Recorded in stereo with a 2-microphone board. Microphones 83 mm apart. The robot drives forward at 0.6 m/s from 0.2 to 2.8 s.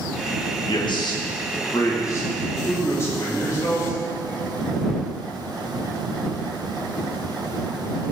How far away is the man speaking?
About 1.2 m.